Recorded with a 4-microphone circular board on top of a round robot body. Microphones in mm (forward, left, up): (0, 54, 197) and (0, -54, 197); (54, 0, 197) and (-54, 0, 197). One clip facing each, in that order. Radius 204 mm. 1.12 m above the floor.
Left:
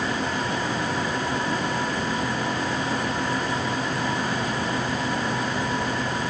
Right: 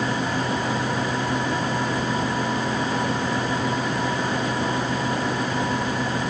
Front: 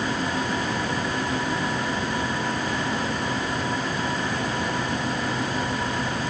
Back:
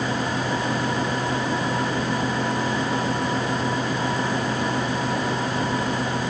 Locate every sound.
Only background noise.